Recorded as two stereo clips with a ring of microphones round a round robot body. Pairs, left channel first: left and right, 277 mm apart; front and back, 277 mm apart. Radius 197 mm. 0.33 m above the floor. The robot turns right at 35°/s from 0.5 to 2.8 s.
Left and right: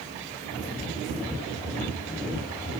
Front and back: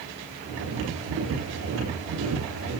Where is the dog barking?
No dog barking in this recording.